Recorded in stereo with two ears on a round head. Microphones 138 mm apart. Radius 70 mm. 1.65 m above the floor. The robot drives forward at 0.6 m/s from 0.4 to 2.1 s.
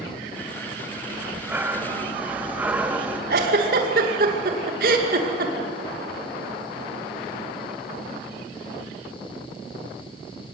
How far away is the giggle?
About 2.5 m.